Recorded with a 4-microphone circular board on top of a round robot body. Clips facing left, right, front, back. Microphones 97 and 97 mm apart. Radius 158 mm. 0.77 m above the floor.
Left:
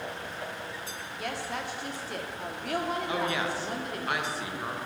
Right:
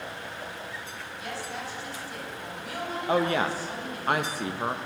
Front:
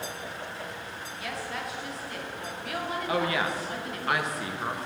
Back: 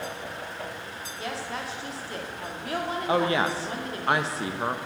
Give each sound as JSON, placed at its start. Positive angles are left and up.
{"t": 1.2, "sound": "a woman speaking", "azimuth_deg": 120, "distance_m": 1.8}
{"t": 3.1, "sound": "a woman speaking", "azimuth_deg": -125, "distance_m": 0.8}